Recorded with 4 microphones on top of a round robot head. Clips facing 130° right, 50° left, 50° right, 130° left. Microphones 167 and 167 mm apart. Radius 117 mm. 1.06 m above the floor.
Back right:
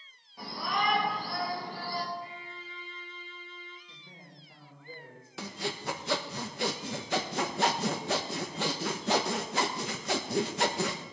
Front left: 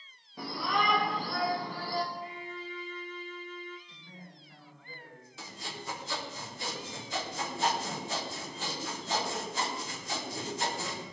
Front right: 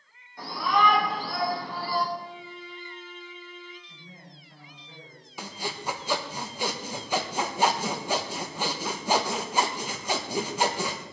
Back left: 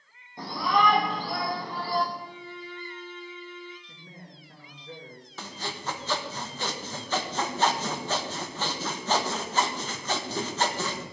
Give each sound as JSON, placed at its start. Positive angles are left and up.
{"t": 0.4, "sound": "a shout", "azimuth_deg": 65, "distance_m": 3.0}
{"t": 2.1, "sound": "a violin", "azimuth_deg": 100, "distance_m": 1.9}
{"t": 3.9, "sound": "a man speaking", "azimuth_deg": 160, "distance_m": 4.0}
{"t": 5.4, "sound": "sawing", "azimuth_deg": -125, "distance_m": 1.3}